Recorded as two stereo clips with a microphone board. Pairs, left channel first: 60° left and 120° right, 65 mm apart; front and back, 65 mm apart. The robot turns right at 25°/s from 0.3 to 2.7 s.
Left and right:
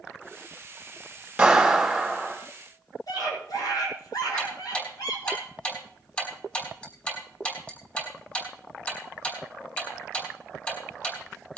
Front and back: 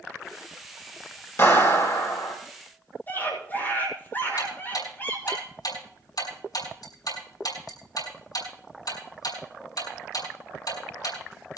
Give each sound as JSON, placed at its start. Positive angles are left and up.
{"t": 1.4, "sound": "a clap", "azimuth_deg": -40, "distance_m": 3.0}
{"t": 3.1, "sound": "a scream", "azimuth_deg": 60, "distance_m": 6.0}
{"t": 4.4, "sound": "ticking", "azimuth_deg": -5, "distance_m": 4.5}